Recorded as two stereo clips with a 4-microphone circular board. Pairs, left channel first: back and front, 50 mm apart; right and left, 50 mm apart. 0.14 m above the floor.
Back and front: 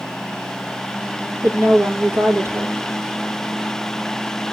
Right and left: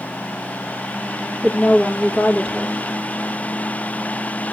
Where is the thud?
No thud in this recording.